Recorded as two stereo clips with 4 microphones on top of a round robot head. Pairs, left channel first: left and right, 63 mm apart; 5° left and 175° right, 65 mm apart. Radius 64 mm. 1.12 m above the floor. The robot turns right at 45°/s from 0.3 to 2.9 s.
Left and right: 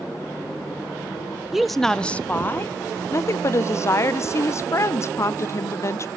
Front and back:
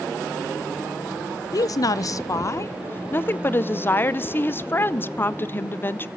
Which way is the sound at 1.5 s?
5° right.